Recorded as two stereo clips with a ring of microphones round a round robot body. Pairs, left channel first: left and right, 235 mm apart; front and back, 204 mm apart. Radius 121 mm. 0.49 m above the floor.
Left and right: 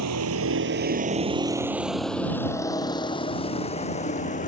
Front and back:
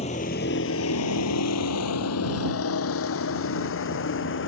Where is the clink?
I don't hear a clink.